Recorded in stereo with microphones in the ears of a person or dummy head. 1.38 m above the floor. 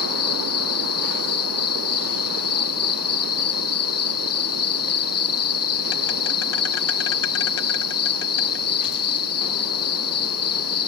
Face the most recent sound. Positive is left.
turn(degrees=70)  # may be behind; listen again after turning